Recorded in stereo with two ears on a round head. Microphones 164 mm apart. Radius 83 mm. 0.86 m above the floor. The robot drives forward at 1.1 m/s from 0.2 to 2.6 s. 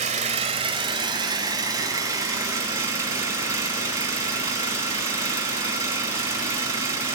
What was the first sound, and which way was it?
An engine running, 40° right (ahead or behind).